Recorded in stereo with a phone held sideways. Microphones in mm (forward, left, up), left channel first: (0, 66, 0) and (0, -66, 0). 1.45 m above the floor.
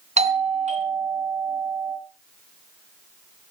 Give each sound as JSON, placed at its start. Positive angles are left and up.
{"t": 0.2, "sound": "a doorbell", "side_deg": -55, "distance_m": 2.5}